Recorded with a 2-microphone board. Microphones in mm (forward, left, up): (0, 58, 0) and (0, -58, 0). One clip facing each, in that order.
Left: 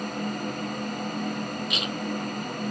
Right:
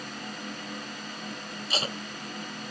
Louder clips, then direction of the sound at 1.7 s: Left 2 dB; 35° right (ahead or behind).